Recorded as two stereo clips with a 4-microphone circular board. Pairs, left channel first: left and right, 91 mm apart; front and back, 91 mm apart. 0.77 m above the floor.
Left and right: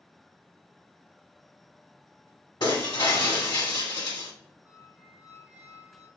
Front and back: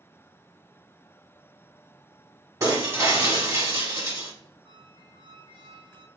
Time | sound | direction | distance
2.6 | breaking glass | 125° left | 1.2 m
4.7 | a squeak | 165° right | 0.6 m